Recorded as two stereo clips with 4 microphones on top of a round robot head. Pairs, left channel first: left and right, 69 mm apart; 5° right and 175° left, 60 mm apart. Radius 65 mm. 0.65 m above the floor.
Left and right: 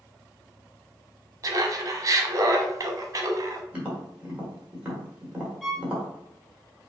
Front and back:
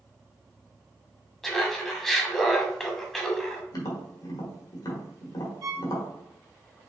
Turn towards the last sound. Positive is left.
turn(degrees=175)